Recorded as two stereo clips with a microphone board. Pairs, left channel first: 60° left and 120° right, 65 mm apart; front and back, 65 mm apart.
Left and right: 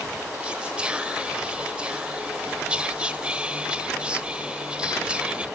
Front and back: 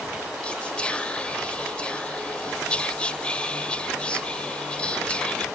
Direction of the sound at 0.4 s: 60° right.